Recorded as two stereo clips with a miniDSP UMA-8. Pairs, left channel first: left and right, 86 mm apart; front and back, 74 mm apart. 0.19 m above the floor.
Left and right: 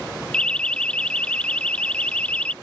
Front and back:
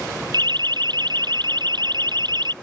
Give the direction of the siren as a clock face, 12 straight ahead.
6 o'clock.